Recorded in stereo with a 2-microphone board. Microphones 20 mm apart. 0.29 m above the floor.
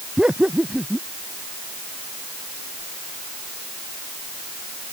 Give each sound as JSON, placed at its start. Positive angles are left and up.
{"t": 0.2, "sound": "laughter", "side_deg": -50}